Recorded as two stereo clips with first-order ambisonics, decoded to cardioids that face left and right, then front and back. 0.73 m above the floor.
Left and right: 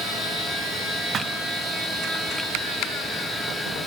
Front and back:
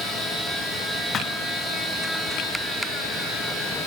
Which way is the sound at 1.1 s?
45° right.